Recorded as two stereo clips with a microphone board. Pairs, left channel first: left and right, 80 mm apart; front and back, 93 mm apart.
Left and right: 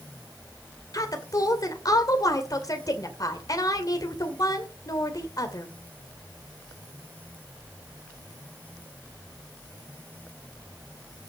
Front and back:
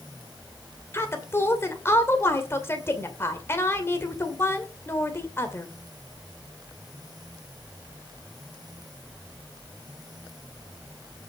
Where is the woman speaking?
60° left, 2.5 m.